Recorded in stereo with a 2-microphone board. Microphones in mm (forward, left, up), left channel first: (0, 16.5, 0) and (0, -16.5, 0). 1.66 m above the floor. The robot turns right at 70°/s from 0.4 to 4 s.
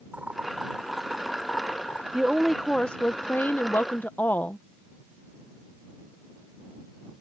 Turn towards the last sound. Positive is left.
turn(degrees=110)